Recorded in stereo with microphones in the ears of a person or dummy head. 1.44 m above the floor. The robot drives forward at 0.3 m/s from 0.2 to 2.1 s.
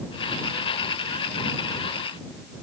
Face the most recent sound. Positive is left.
No sound to turn to.